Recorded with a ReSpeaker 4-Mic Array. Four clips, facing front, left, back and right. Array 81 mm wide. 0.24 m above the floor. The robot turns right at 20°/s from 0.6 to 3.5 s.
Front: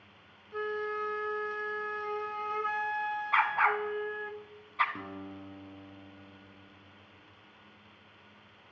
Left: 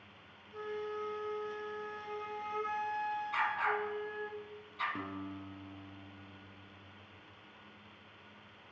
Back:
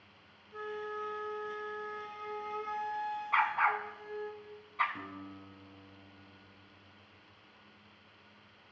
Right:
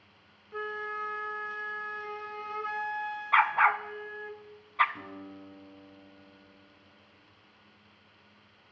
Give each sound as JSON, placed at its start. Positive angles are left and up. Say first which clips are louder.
{"t": 0.5, "sound": "a flute", "louder": "right 4 dB, front 6 dB", "azimuth_deg": -60, "distance_m": 0.8}
{"t": 3.3, "sound": "a dog barking", "louder": "right 12 dB, front 2 dB", "azimuth_deg": -80, "distance_m": 0.7}
{"t": 5.0, "sound": "a guitar", "louder": "left 2 dB, front 3 dB", "azimuth_deg": 55, "distance_m": 2.0}